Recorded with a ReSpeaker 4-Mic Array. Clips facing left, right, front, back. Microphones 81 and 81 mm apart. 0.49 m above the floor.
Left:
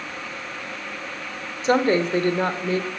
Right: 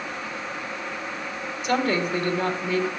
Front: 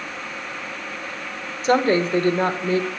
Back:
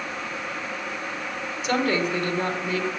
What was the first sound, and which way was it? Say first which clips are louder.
A woman speaking: left 5 dB, front 6 dB; 40° left.